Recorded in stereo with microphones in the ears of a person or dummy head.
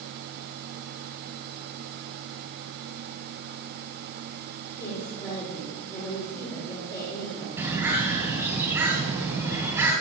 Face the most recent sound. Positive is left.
turn(degrees=-15)  # may be behind; listen again after turning